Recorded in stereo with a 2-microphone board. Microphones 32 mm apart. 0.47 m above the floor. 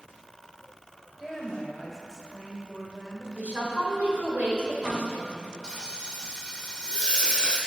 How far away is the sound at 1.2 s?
About 2 m.